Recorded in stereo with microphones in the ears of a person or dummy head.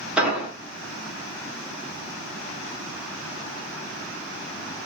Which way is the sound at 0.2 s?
Centre (ahead or behind).